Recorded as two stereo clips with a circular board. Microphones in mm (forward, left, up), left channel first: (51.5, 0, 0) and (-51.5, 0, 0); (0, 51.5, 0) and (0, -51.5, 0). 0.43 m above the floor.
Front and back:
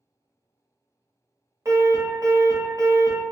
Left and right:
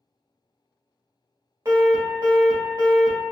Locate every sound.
1.6 s an alarm: 135° right, 1.5 m